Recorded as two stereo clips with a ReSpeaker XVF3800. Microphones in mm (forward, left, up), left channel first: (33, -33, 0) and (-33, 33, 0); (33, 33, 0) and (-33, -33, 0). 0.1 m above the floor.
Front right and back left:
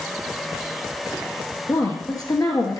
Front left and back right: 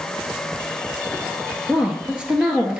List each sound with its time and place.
1.7 s a woman speaking: 60° right, 1.5 m